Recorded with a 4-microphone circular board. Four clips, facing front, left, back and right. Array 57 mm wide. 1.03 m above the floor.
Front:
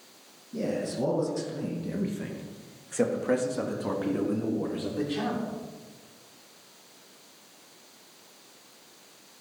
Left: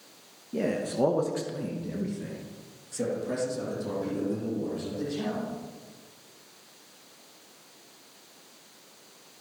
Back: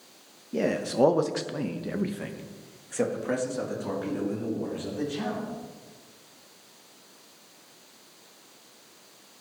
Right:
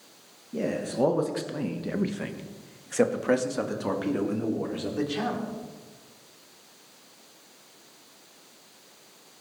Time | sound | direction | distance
0.5 | a man speaking | 165° left | 1.4 m